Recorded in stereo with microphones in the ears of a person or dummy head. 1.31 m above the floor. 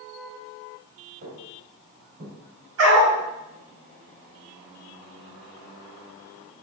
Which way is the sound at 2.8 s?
80° right.